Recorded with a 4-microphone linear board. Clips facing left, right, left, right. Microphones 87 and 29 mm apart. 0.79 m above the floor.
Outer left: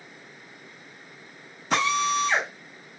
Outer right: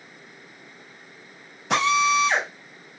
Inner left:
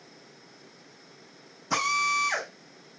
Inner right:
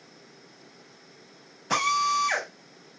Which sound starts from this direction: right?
A drill, at 1.7 s.